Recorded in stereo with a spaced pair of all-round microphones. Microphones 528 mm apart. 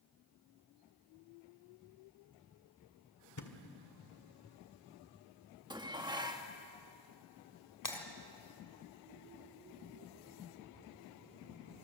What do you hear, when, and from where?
3.4 s a thud: 35° left (ahead or behind), 1.5 m
5.7 s dishes clattering: 10° right (ahead or behind), 1.4 m
7.8 s breaking glass: 35° left (ahead or behind), 2.5 m